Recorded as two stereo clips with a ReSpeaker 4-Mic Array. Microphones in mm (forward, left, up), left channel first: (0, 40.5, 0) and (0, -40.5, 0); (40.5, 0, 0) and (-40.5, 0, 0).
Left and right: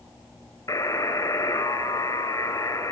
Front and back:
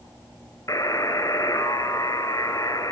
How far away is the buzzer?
About 4.5 m.